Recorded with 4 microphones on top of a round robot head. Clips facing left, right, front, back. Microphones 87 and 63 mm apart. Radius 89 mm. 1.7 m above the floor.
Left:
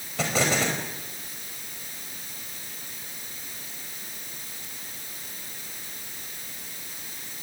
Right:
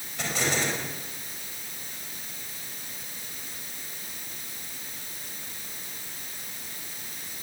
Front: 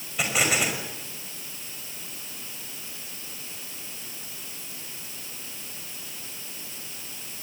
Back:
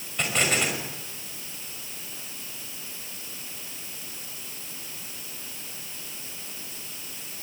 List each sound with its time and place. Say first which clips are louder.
0.2 s an explosion: left 4 dB, front 1 dB; 85° left, 5 m